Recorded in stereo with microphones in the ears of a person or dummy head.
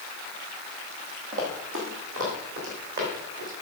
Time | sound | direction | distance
1.3 | running footsteps | 50° right (ahead or behind) | 2.0 m